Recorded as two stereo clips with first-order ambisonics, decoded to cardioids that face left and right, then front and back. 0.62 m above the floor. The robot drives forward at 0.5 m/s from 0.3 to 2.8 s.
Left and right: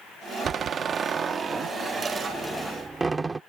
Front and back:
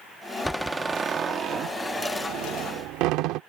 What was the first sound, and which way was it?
A door slam, 85° right.